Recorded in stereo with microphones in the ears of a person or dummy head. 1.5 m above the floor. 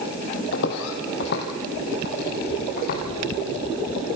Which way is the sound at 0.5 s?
60° left (ahead or behind).